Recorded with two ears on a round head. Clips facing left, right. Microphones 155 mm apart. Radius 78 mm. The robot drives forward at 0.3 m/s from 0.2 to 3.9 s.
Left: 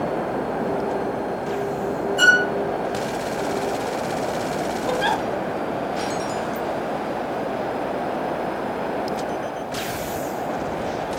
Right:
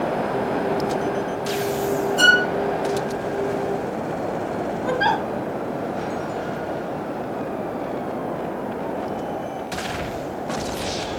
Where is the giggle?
70° right (ahead or behind), 3 m.